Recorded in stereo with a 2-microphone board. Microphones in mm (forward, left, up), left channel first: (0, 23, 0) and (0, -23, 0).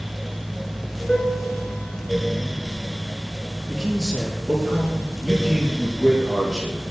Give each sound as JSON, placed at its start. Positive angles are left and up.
{"t": 1.1, "sound": "a piano", "side_deg": 15, "distance_m": 3.5}
{"t": 3.7, "sound": "a man speaking", "side_deg": -10, "distance_m": 7.0}